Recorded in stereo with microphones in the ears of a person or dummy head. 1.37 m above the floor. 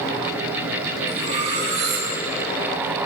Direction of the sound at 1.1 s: 35° right (ahead or behind).